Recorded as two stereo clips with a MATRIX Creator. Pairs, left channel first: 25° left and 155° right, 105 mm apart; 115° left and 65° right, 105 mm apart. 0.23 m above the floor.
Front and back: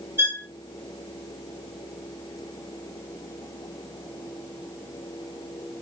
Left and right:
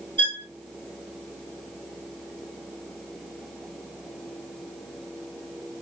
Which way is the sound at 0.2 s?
100° right.